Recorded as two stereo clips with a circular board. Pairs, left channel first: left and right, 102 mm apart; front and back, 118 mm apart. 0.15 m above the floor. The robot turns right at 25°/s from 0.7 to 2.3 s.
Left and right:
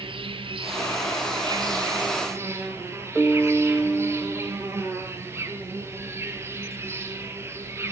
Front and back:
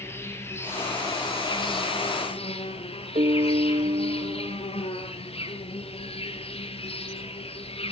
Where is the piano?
175° right, 0.9 m.